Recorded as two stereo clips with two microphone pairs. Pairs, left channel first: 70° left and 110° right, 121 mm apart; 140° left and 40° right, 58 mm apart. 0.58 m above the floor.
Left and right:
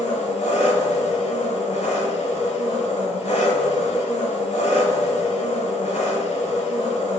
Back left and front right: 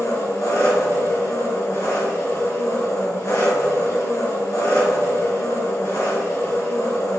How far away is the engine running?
About 2.5 m.